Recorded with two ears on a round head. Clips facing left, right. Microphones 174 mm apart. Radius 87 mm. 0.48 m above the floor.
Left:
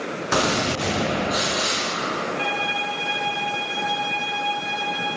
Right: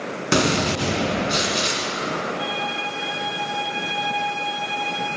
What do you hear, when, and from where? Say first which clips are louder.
0.3 s a gunshot: right 3 dB; 30° right (ahead or behind), 1.1 m
2.4 s a violin: left 1 dB; 70° left (ahead or behind), 1.1 m